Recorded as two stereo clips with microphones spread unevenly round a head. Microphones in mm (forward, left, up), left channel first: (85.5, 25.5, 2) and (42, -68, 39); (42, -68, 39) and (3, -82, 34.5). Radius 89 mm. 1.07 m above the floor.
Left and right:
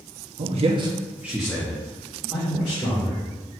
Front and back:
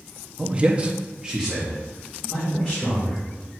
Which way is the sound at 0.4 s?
110° right.